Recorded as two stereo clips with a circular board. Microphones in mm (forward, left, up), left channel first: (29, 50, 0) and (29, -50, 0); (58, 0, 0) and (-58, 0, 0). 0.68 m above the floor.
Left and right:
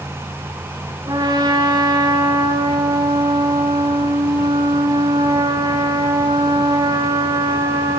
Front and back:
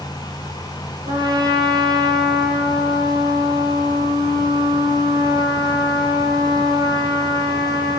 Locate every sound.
1.1 s a trumpet: 130° right, 7 m